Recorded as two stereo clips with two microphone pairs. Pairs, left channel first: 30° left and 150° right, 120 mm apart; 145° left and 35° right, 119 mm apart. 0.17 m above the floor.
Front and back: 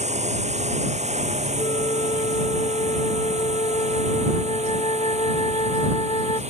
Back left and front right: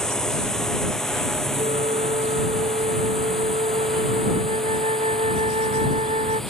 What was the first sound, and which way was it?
A drone, 130° right.